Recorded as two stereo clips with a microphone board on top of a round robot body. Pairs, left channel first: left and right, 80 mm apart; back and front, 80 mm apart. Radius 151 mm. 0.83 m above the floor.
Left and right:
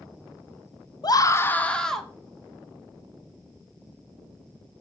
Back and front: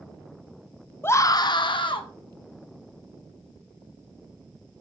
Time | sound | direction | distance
1.0 | a scream | 115° left | 1.0 m